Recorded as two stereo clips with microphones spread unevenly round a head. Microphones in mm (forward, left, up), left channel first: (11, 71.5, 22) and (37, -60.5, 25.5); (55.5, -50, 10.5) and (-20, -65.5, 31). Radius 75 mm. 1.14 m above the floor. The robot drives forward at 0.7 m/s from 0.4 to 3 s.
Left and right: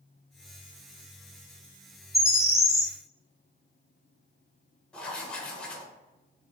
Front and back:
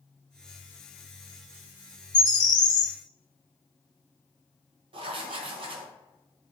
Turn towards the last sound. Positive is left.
turn(degrees=-175)